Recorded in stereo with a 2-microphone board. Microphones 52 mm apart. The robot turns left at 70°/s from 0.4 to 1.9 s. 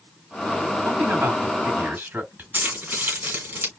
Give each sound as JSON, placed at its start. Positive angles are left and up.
{"t": 0.8, "sound": "a man speaking", "azimuth_deg": -55, "distance_m": 2.5}
{"t": 2.5, "sound": "keys jangling", "side_deg": -40, "distance_m": 1.8}